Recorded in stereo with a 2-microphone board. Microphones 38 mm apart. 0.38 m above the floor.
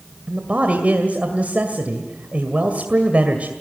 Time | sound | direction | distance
0.3 | a man speaking | 45° right (ahead or behind) | 2 m